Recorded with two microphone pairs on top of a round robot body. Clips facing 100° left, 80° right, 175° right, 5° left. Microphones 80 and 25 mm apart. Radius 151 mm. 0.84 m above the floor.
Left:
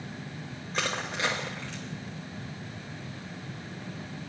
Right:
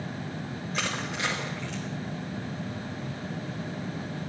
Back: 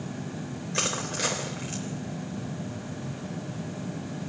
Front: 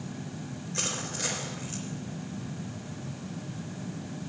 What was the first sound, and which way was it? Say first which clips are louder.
Crushing: left 1 dB, back 4 dB; 135° left.